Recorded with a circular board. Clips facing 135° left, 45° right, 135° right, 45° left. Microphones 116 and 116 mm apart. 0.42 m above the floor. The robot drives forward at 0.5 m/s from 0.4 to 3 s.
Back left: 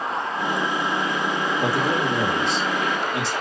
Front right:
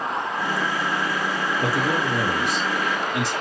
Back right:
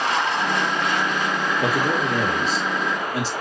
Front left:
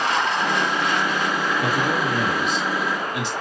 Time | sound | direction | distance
1.6 | a man speaking | 170° right | 1.3 m